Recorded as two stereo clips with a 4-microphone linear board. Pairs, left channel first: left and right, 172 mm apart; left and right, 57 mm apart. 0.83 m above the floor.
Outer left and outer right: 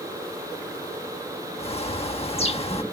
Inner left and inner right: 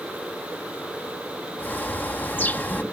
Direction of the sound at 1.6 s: 35° left (ahead or behind).